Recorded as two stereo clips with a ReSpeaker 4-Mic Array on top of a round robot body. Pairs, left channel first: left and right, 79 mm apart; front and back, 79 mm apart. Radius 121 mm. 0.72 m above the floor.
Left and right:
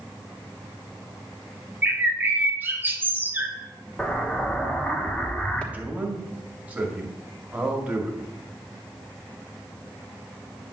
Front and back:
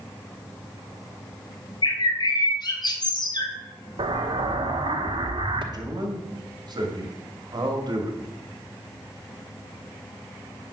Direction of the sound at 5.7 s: 160° right.